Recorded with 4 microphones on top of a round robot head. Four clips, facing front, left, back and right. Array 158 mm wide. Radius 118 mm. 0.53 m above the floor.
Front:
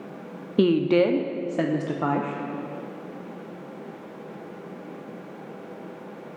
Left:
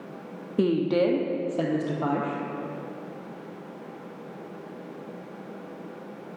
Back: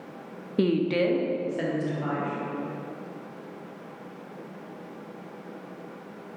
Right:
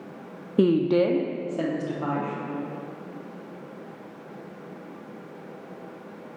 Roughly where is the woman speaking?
Ahead right.